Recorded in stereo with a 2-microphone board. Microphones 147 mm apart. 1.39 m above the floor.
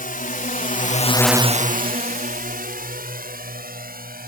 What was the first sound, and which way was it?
A drone, 75° left (ahead or behind).